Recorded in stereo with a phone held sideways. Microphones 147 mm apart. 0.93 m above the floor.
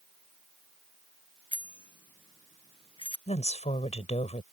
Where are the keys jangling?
No keys jangling in this recording.